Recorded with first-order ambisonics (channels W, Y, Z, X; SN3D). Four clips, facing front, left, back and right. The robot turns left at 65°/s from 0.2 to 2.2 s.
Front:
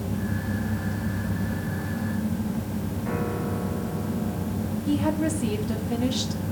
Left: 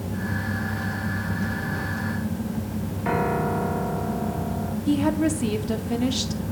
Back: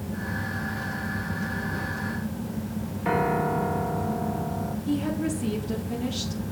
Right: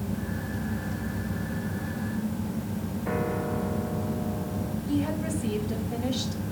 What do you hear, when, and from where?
3.0 s a piano: 130° left, 1.3 m
4.9 s a woman speaking: 75° left, 2.5 m